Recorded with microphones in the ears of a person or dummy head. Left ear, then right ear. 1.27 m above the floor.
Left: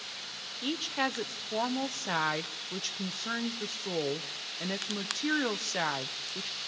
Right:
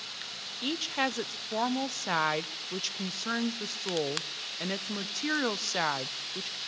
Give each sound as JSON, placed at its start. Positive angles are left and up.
{"t": 0.6, "sound": "a woman speaking", "side_deg": -10, "distance_m": 0.6}